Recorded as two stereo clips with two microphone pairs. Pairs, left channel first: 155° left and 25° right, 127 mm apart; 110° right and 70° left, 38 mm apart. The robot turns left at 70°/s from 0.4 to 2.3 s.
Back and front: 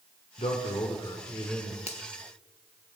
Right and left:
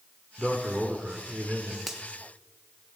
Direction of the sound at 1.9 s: 150° left.